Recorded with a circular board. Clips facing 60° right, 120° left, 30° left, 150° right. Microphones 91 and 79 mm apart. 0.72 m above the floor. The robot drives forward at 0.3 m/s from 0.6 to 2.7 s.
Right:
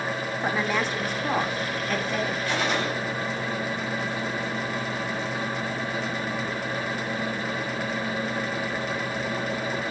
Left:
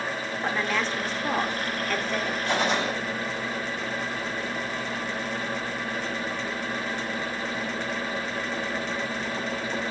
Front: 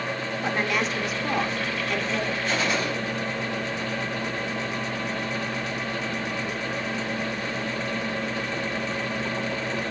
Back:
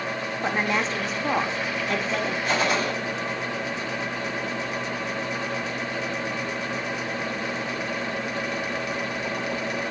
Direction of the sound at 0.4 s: 120° right.